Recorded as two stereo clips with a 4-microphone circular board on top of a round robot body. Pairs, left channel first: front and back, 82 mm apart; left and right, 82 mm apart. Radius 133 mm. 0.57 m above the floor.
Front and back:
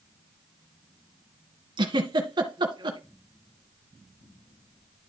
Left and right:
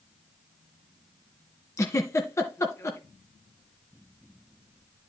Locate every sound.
1.8 s a giggle: 145° left, 1.6 m